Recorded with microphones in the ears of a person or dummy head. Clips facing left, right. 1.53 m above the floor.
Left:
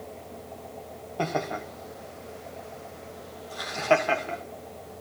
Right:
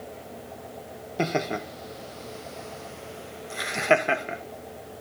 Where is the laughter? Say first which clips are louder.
Right 2 dB; 35° right (ahead or behind), 1.2 m; by 4.4 s 20° right (ahead or behind), 1.7 m.